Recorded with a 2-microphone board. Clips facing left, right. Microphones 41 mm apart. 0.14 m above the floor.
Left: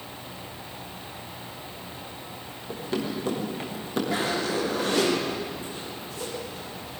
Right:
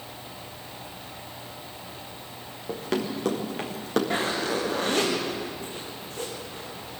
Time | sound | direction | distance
2.7 | running footsteps | 75° right (ahead or behind) | 6 m
4.1 | a zipper | 50° right (ahead or behind) | 9 m